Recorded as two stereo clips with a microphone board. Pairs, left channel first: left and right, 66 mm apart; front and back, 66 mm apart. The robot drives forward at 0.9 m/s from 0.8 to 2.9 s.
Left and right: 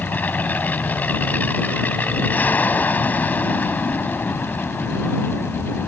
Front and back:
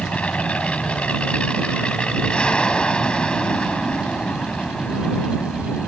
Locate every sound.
0.0 s an aircraft: 55° left; by 5.9 s 60° left